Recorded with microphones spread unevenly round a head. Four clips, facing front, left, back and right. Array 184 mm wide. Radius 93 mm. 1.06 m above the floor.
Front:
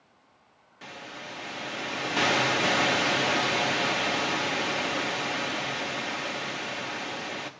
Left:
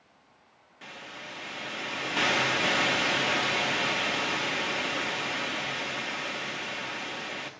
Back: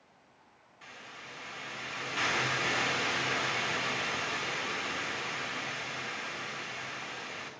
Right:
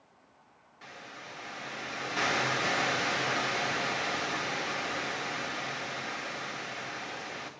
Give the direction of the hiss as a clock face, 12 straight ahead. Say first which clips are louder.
Left 3 dB, front 8 dB; 11 o'clock.